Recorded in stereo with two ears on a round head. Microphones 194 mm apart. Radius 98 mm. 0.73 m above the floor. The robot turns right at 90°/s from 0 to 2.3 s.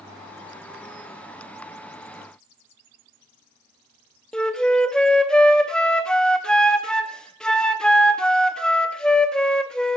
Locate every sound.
4.3 s a flute: 5° left (ahead or behind), 0.7 m